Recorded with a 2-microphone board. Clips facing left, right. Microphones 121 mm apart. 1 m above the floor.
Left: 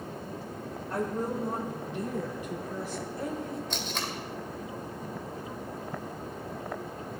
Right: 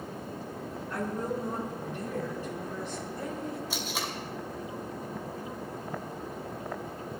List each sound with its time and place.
0.9 s a woman speaking: 40° left (ahead or behind), 3 m; by 3.6 s centre (ahead or behind), 4 m
3.7 s tape being pulled: 10° right (ahead or behind), 2 m